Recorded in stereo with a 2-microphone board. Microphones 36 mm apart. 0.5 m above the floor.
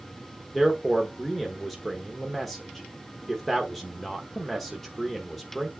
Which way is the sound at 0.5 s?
Centre (ahead or behind).